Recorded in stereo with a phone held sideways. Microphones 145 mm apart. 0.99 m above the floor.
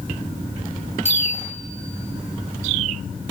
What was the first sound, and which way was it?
A bicycle bell, 50° left (ahead or behind).